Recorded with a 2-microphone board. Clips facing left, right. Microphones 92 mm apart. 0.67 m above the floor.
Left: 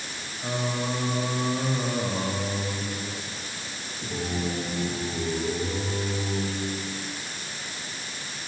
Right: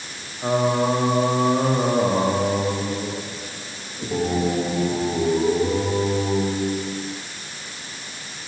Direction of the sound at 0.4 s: 50° right (ahead or behind).